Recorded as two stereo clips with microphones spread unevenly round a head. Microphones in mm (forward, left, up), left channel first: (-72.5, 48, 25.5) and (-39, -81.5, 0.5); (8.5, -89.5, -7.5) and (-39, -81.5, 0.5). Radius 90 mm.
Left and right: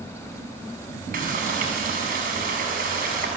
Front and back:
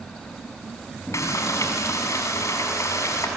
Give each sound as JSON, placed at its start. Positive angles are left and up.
{"t": 1.1, "sound": "frying", "azimuth_deg": -25, "distance_m": 7.0}